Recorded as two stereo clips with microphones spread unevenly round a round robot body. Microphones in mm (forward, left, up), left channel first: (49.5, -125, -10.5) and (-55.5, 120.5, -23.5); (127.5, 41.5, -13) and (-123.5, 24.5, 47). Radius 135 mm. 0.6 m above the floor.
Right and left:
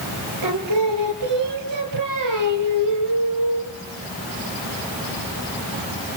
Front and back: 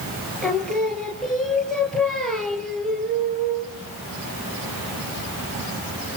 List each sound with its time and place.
0.4 s singing: 95° left, 3.5 m